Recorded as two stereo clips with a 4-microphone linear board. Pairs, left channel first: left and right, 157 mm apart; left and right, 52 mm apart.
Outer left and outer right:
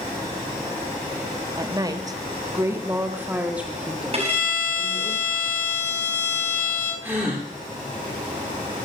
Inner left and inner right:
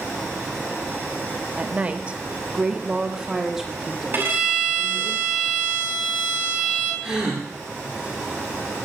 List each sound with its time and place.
1.6 s a woman speaking: 25° right (ahead or behind), 1.1 m; by 5.1 s centre (ahead or behind), 2.5 m
4.1 s a violin: 45° right (ahead or behind), 4.5 m
7.0 s a gasp: 10° right (ahead or behind), 5.5 m